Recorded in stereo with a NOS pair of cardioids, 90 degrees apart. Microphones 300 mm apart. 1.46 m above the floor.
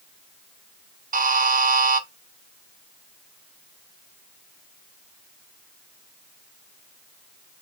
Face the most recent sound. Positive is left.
turn(degrees=-30)